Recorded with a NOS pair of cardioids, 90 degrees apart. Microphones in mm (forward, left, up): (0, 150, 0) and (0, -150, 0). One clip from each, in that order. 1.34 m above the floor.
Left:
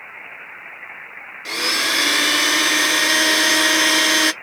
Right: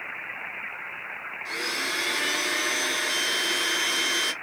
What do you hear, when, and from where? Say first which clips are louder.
1.4 s a blender: left 10 dB; 60° left, 0.5 m